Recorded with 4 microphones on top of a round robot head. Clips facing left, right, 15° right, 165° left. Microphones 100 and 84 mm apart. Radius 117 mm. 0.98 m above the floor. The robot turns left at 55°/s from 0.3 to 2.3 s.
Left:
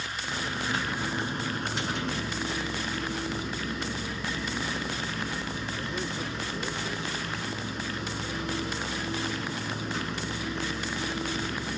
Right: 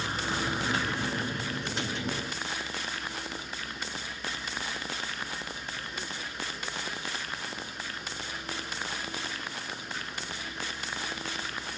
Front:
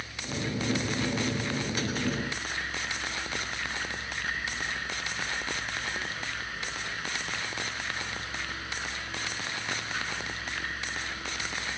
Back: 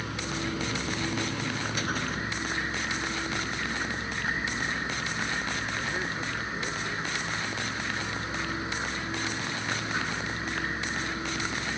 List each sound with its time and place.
0.0 s a vehicle: 150° right; by 11.8 s 100° left